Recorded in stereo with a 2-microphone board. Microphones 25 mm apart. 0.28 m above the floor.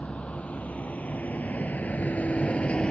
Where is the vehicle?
55° left (ahead or behind); by 2.9 s 40° left (ahead or behind).